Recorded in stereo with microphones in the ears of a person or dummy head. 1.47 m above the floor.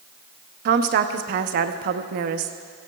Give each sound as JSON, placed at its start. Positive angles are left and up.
{"t": 0.7, "sound": "a woman speaking", "side_deg": -55, "distance_m": 0.7}